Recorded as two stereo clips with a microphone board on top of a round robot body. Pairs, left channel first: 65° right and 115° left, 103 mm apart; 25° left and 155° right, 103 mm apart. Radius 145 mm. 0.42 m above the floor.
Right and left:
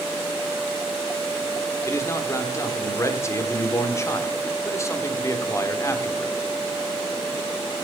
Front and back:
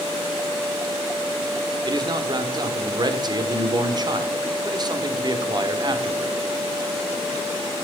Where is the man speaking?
125° right, 1.7 m.